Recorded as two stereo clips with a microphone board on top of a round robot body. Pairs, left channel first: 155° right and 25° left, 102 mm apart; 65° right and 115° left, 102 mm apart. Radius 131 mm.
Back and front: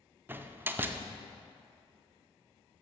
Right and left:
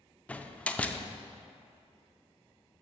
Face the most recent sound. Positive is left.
turn(degrees=-10)